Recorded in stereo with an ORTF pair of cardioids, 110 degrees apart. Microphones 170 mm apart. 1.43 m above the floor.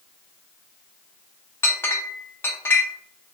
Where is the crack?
I don't hear a crack.